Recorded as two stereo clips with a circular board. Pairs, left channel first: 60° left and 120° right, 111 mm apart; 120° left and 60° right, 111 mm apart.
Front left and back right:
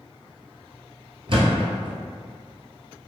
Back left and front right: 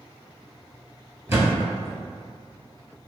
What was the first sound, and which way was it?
A thud, 120° right.